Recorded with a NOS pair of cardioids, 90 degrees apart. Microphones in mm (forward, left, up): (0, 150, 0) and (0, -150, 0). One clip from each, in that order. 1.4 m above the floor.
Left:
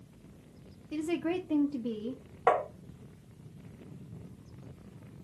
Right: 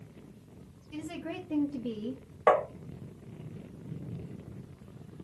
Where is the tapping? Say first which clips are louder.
Right 3 dB; 5° right, 0.9 m.